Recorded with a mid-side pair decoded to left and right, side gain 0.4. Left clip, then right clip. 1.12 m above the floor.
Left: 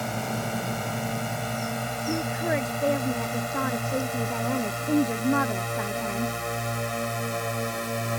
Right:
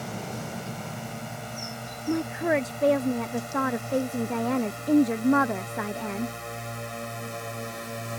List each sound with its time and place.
0.0 s a drone: 55° left; by 8.2 s 45° left
2.1 s a woman speaking: 25° right